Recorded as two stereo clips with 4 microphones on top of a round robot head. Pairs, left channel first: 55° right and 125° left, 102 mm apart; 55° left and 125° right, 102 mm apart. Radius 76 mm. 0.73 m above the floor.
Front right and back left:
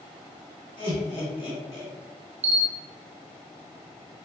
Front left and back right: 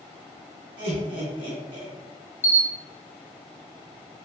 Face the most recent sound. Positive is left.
turn(degrees=125)